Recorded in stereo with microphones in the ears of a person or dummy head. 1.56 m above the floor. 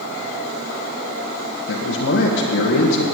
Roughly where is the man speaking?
Left.